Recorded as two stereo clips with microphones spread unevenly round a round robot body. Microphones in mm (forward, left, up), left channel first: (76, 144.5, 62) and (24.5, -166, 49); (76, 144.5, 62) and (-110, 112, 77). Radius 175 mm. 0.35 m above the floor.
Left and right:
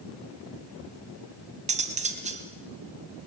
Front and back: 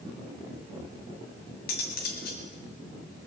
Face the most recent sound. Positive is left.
turn(degrees=-30)